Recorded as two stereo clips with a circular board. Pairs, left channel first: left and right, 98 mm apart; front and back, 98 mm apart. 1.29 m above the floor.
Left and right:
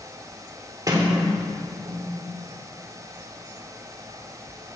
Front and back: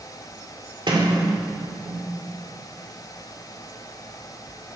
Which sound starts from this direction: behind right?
A sliding door, at 0.9 s.